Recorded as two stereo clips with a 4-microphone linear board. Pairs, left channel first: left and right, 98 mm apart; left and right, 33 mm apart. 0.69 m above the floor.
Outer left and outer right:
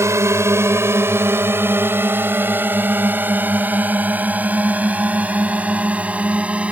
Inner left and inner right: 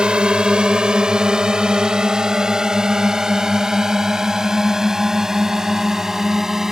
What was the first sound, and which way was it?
A drone, 30° right (ahead or behind).